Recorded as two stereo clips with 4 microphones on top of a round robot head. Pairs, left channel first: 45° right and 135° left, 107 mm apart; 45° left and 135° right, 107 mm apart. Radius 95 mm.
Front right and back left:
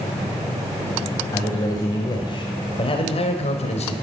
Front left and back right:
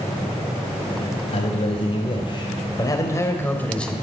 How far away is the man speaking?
About 2.5 m.